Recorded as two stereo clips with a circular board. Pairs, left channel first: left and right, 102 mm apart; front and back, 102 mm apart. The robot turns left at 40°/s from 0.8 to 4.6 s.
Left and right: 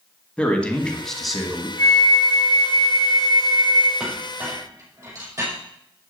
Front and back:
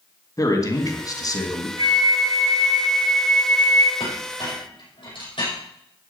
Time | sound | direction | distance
0.4 | a man speaking | 20° left | 2 m
1.8 | a flute | 145° left | 1.5 m
4.0 | a clink | 5° right | 5.5 m